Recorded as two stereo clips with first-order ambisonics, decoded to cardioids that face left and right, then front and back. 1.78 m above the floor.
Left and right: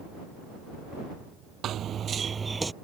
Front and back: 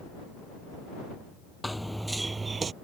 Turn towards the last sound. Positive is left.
turn(degrees=-160)